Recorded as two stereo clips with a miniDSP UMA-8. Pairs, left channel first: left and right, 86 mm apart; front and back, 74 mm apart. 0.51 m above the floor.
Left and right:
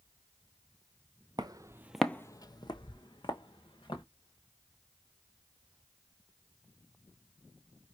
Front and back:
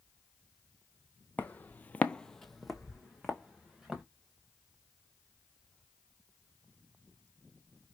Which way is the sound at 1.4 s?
65° right.